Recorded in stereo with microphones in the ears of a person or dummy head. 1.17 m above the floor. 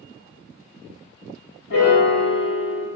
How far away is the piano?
About 1.2 m.